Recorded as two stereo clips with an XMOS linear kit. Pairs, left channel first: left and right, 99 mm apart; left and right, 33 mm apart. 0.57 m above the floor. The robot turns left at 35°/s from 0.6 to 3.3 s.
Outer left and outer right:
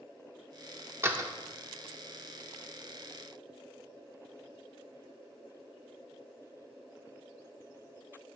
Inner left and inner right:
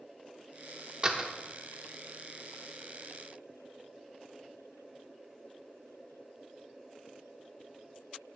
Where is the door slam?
25° right (ahead or behind), 0.7 m; by 1.3 s 35° right (ahead or behind), 0.7 m.